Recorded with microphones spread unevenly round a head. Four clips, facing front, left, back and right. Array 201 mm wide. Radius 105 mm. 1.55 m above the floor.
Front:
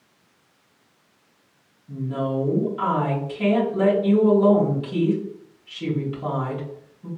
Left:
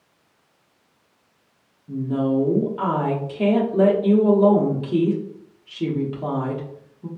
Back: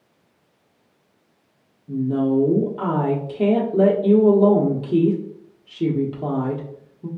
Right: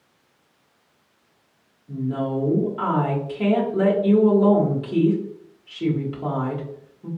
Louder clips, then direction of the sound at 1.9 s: Left 3 dB, back 6 dB; 165° left.